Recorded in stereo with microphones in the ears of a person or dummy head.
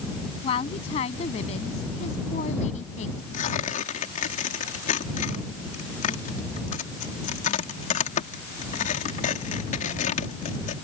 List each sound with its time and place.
0.4 s a woman speaking: 30° left (ahead or behind); by 3.2 s 40° left (ahead or behind)
3.3 s tearing paper: 55° left (ahead or behind)